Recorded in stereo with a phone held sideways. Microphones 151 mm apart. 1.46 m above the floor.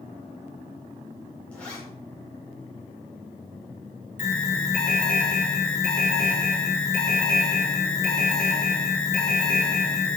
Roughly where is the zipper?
Centre.